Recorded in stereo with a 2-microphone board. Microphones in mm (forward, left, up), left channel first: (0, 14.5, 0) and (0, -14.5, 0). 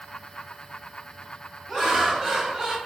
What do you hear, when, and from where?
1.7 s laughter: 5° right (ahead or behind), 1.2 m; by 2.8 s 20° right (ahead or behind), 0.9 m